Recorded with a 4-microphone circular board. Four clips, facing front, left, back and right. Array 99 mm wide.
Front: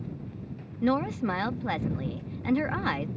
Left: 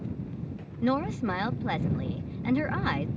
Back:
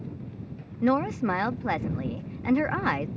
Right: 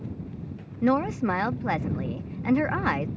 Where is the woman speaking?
130° right.